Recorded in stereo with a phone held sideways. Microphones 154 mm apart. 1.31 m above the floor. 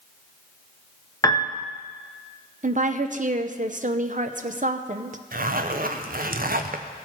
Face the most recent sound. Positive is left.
turn(degrees=-65)  # may be behind; listen again after turning